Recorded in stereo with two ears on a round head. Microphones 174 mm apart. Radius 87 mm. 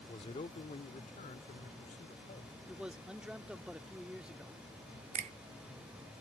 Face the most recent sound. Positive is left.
turn(degrees=-35)  # may be behind; listen again after turning